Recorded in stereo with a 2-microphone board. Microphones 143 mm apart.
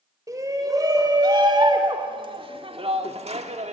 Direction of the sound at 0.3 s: 25° right (ahead or behind).